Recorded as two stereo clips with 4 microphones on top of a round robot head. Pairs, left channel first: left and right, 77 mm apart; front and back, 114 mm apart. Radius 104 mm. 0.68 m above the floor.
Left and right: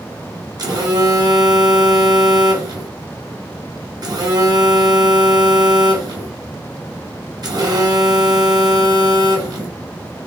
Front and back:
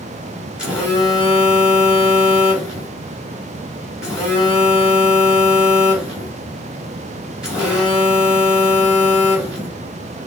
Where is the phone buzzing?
95° right, 1.6 m.